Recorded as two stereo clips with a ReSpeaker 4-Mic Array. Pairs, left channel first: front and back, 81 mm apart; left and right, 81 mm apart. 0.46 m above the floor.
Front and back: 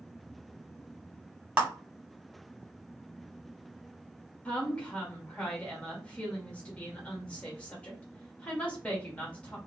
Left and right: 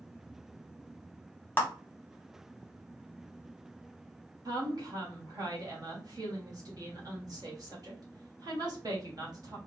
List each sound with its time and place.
1.6 s a clap: 130° left, 1.0 m
4.5 s a woman speaking: 70° right, 1.1 m